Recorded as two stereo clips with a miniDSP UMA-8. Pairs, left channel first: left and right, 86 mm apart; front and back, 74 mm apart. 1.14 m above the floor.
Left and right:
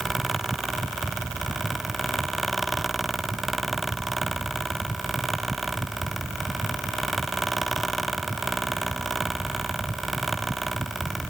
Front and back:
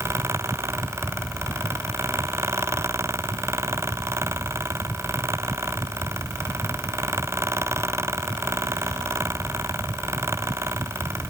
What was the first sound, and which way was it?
Only background noise.